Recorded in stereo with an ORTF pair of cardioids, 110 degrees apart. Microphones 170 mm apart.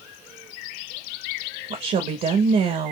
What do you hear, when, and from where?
1.7 s a woman speaking: 55° right, 1.1 m